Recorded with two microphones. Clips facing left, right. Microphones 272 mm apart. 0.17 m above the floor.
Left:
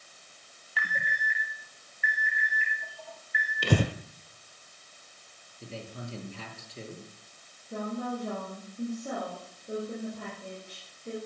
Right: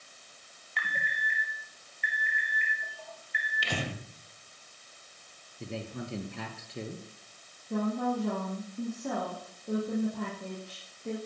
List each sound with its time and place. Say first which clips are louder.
0.8 s an alarm: left 2 dB; 5° left (ahead or behind), 4.5 m
3.6 s breathing: left 9 dB; 50° left (ahead or behind), 1.4 m
5.6 s a man speaking: right 4 dB; 65° right (ahead or behind), 4 m
7.7 s a woman speaking: right 4 dB; 80° right, 7.5 m